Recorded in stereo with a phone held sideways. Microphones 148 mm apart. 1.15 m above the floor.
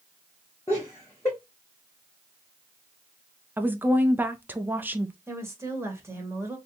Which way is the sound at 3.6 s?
15° right (ahead or behind).